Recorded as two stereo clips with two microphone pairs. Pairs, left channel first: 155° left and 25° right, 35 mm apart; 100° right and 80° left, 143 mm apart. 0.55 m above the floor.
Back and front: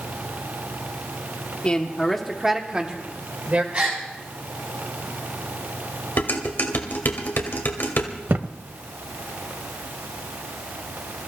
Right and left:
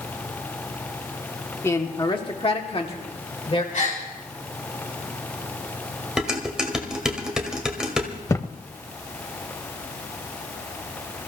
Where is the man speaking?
165° right, 1.6 m; by 3.6 s 55° right, 2.5 m.